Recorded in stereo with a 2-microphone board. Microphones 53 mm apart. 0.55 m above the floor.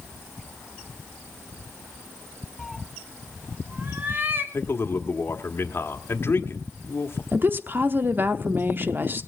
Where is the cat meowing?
10° left (ahead or behind), 0.7 m; by 4.4 s 45° right (ahead or behind), 1.6 m.